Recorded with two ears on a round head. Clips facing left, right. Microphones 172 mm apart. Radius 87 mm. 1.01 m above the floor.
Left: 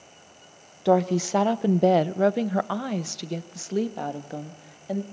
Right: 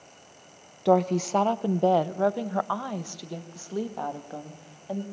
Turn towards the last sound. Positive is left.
turn(degrees=20)  # may be behind; listen again after turning